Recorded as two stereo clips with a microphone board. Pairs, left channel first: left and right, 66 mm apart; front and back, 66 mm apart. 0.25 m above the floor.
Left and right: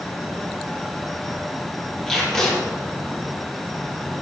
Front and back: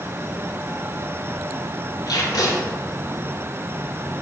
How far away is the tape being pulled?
About 5.5 m.